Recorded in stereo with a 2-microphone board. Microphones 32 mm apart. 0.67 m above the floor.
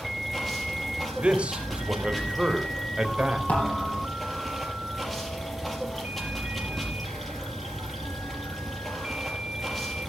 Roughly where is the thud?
Left.